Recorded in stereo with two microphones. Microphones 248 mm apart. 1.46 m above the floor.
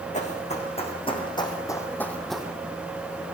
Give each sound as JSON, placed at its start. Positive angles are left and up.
{"t": 0.1, "sound": "running footsteps", "side_deg": 30, "distance_m": 5.0}